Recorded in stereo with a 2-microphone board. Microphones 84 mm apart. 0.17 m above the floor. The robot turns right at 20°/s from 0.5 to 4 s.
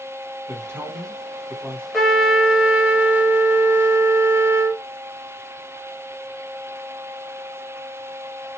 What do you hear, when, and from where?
0.5 s a man speaking: 30° right (ahead or behind), 1.5 m; by 1.8 s 25° right (ahead or behind), 1.5 m
1.9 s a trumpet: straight behind, 1.0 m; by 4.8 s 140° right, 1.0 m